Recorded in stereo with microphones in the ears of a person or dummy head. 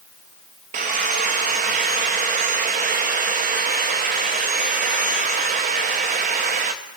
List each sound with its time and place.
0.7 s sawing: 35° right (ahead or behind), 0.6 m